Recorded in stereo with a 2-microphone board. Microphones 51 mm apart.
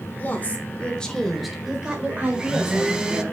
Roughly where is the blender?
Centre.